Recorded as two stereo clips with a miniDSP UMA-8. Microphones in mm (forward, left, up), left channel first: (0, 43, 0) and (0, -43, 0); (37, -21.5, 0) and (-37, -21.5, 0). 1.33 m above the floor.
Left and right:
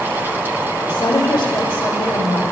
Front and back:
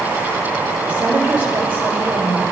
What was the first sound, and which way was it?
A woman speaking, 115° left.